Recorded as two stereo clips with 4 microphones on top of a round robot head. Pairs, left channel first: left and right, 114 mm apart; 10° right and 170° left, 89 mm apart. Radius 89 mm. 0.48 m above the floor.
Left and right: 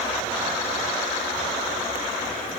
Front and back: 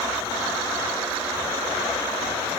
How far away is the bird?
No bird in this recording.